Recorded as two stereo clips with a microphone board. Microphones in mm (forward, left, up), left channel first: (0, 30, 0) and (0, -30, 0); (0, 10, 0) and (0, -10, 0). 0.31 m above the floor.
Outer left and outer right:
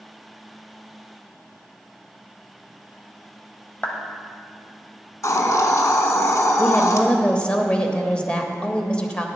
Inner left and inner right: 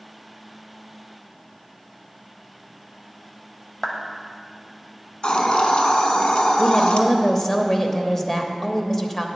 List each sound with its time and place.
3.8 s a clap: 25° left (ahead or behind), 1.1 m
5.2 s a hiss: 60° left (ahead or behind), 0.9 m
6.6 s a woman speaking: 20° left (ahead or behind), 0.9 m